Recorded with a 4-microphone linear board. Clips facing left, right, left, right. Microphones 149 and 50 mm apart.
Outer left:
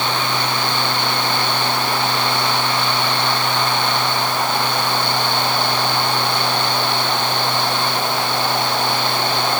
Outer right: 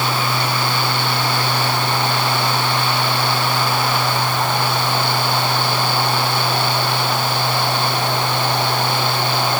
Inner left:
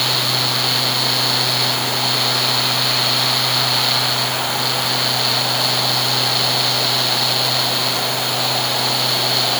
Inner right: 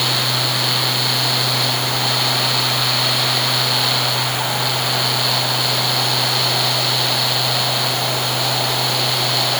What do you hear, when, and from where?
Only background noise.